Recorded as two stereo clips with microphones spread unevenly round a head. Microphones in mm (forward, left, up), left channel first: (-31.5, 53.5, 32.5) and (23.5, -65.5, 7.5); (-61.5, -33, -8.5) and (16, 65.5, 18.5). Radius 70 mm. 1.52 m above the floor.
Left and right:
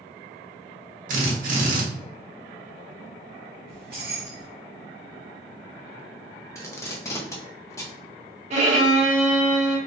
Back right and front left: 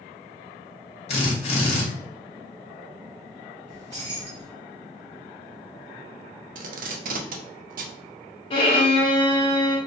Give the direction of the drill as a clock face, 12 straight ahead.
3 o'clock.